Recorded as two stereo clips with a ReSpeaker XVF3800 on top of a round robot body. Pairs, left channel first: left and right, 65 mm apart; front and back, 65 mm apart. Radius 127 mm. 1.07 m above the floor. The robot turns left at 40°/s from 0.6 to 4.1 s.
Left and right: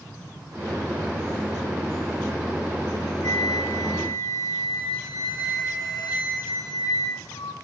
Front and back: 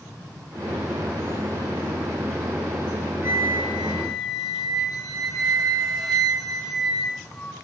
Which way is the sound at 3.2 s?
120° left.